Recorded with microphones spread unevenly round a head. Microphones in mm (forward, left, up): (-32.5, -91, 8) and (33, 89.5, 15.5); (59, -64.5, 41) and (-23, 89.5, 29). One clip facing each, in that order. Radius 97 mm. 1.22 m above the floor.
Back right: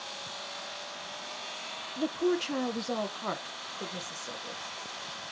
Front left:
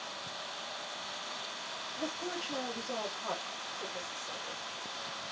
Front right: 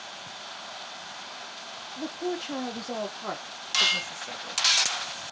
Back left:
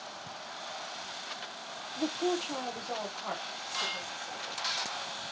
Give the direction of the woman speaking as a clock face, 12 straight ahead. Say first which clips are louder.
Back right 11 dB, back left 1 dB; 5 o'clock.